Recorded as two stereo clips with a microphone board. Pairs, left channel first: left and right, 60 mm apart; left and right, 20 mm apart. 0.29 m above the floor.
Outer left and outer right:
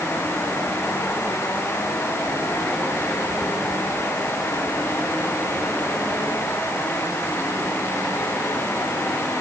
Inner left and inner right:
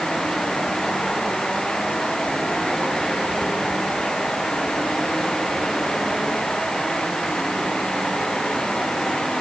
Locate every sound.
Only background noise.